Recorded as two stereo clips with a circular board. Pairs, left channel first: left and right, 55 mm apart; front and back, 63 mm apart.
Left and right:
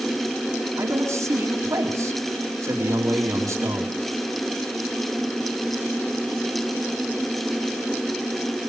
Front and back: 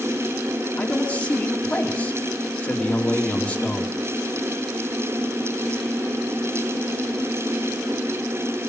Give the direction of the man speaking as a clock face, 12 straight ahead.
2 o'clock.